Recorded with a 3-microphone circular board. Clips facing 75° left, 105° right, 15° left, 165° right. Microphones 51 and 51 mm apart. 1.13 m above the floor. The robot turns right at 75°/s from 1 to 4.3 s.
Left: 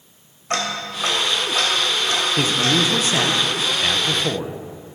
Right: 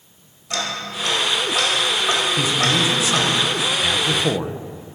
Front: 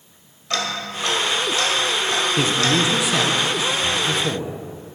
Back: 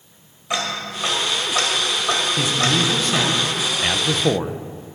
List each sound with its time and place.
0.5 s ticking: 120° left, 2 m; by 3.3 s 65° right, 2 m
2.4 s a man speaking: 40° left, 0.7 m; by 4.6 s 175° right, 0.7 m